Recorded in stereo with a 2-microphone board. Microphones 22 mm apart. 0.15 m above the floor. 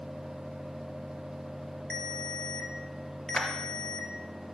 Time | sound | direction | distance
1.9 | a ringtone | 45° left (ahead or behind) | 1.7 m
3.3 | a clap | 50° left (ahead or behind) | 2.5 m